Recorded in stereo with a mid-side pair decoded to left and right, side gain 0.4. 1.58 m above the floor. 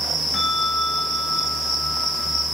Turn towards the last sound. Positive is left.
turn(degrees=20)